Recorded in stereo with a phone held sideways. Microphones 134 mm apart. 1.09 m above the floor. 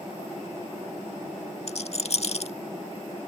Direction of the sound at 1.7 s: 50° left (ahead or behind).